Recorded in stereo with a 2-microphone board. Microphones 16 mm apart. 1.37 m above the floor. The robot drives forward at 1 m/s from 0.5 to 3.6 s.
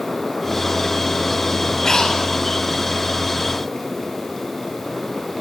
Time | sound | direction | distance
1.9 | breathing | 45° left (ahead or behind) | 5 m